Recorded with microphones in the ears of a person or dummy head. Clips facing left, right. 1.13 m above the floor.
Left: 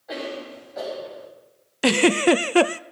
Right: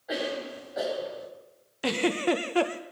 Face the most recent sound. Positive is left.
turn(degrees=65)  # may be behind; listen again after turning